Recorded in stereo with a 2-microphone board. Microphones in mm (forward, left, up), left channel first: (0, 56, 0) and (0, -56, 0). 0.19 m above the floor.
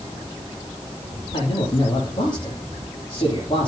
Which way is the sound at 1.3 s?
40° left (ahead or behind).